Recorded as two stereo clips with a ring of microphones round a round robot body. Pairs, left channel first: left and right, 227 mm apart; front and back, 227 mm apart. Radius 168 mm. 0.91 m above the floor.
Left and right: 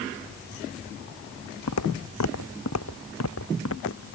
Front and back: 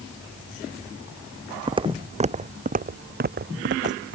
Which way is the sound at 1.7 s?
110° left.